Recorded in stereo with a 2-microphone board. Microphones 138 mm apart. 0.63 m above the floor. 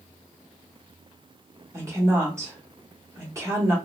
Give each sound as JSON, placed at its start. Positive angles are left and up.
{"t": 1.7, "sound": "a woman speaking", "side_deg": -20, "distance_m": 1.3}